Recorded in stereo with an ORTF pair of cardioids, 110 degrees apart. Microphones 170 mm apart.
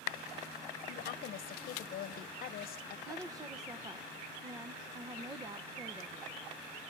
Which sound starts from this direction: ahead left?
A woman speaking, at 0.9 s.